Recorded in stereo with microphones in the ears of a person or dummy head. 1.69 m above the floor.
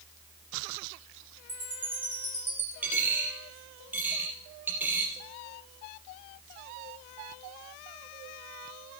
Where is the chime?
10° right (ahead or behind), 1.9 m.